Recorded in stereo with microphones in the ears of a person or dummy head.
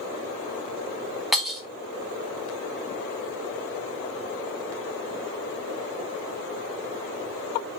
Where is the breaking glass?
Centre (ahead or behind), 0.6 m.